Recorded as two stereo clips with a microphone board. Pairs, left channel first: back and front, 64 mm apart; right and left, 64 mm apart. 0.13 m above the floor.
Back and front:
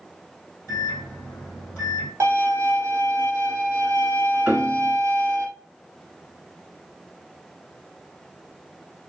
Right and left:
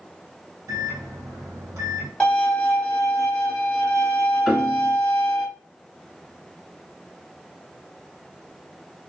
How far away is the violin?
About 1.6 m.